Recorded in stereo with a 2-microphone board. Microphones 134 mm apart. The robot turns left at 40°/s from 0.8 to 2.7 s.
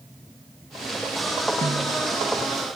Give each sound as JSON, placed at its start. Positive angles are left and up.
{"t": 1.6, "sound": "a snare drum", "side_deg": -70, "distance_m": 2.5}